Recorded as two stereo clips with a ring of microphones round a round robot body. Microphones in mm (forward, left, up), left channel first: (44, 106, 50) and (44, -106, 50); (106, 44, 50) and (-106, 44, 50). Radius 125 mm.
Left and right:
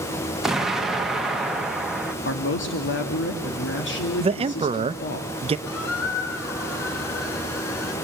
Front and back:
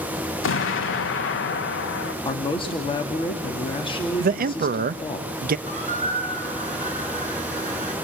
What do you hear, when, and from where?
0.4 s an explosion: straight ahead, 1.4 m
2.2 s a man speaking: 65° left, 2 m
4.2 s a man speaking: 145° right, 0.5 m
5.7 s a squeak: 120° left, 5 m